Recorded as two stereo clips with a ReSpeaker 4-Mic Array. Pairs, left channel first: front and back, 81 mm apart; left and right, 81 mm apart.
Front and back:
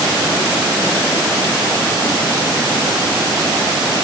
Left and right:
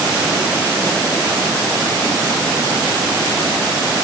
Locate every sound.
Only background noise.